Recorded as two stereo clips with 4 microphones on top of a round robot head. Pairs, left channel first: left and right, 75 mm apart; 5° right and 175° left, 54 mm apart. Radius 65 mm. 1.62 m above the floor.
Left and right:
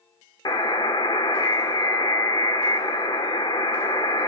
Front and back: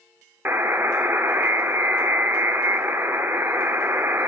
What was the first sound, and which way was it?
A buzzer, 125° left.